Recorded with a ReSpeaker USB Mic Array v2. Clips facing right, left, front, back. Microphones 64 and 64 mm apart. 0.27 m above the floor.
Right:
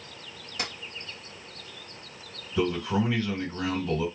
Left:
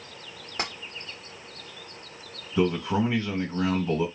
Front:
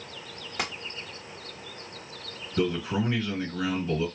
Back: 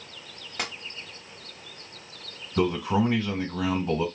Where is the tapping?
80° left, 0.9 m.